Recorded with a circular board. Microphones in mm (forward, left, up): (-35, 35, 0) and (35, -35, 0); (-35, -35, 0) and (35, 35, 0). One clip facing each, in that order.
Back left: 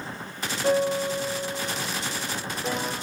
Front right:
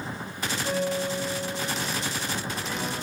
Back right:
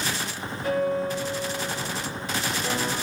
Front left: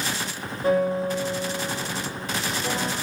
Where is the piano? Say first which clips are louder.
Back left 5 dB, front left 3 dB; 100° left, 5.5 m.